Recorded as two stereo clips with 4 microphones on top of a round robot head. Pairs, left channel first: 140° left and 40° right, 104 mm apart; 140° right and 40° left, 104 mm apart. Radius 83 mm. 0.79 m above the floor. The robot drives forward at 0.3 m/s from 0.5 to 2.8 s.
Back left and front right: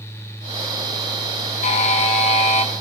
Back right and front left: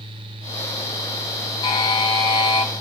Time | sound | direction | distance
1.6 | a buzzer | 165° left | 1.0 m